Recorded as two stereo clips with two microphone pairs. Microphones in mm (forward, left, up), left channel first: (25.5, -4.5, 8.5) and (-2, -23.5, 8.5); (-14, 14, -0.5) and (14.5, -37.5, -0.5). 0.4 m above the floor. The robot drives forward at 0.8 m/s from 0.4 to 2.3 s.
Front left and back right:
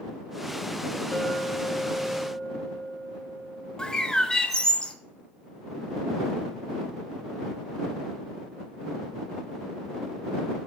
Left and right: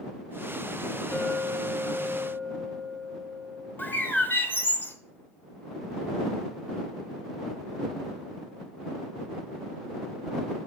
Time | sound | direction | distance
1.1 | a clink | 110° left | 1.8 m
3.8 | a bird | 95° left | 0.9 m